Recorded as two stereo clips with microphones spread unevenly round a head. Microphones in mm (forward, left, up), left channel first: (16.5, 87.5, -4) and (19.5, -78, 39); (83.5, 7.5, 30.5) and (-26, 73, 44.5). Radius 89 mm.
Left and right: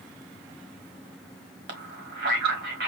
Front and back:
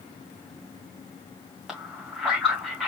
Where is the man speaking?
120° right, 1.9 m.